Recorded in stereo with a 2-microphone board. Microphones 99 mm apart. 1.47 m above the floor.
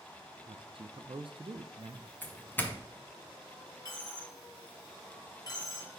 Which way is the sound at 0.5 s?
60° right (ahead or behind).